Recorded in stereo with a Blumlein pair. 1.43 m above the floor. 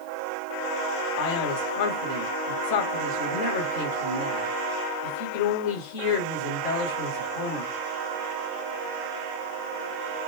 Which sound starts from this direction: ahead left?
A man speaking, at 1.2 s.